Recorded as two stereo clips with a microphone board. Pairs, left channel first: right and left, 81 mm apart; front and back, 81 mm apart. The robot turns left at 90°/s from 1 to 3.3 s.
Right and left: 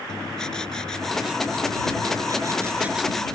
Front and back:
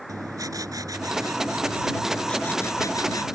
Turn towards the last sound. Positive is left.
turn(degrees=-15)